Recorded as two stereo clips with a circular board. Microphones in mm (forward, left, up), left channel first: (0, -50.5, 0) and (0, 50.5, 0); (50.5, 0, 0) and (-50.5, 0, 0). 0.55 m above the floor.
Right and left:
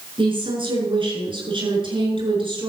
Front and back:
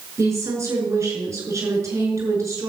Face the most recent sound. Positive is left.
turn(degrees=120)